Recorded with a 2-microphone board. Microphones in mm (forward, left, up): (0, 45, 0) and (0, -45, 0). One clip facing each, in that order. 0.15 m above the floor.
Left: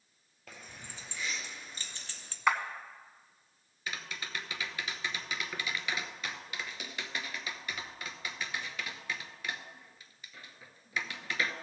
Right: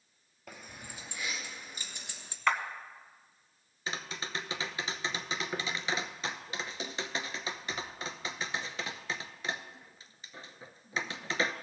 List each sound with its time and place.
0.5 s keys jangling: 5° right (ahead or behind), 2 m; by 2.4 s 15° right (ahead or behind), 1.0 m
2.5 s a clap: 10° left (ahead or behind), 0.8 m
3.9 s tapping: 25° right (ahead or behind), 0.6 m